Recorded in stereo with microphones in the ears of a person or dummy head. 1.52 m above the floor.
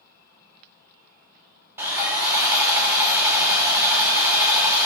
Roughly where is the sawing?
Centre.